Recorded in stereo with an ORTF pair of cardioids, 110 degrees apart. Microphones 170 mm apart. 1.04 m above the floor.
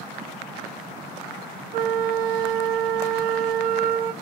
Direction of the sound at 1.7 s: 60° right.